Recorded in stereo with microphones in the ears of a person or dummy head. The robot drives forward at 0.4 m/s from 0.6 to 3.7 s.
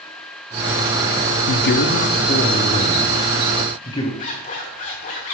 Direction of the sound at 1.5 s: 60° left (ahead or behind).